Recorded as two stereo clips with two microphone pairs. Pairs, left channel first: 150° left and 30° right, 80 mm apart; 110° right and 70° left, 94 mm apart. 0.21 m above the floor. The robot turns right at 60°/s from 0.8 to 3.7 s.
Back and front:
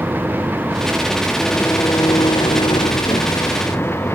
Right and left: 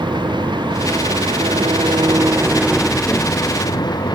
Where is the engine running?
35° left; by 4.1 s 150° right.